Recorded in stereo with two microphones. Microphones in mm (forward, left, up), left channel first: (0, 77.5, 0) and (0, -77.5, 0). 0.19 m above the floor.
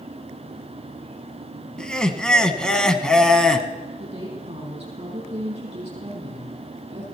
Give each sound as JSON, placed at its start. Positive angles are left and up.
{"t": 1.8, "sound": "laughter", "side_deg": 5, "distance_m": 1.2}
{"t": 4.0, "sound": "a woman speaking", "side_deg": -40, "distance_m": 5.5}